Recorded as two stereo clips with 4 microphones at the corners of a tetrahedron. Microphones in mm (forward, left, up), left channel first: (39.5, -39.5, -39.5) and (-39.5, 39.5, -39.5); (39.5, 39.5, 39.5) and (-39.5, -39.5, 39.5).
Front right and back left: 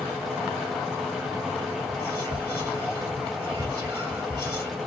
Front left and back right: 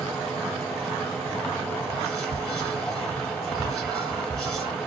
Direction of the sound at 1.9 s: 130° left.